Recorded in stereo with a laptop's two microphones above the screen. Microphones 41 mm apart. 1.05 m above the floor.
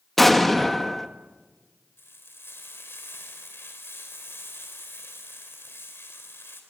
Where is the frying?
70° left (ahead or behind), 4.5 m.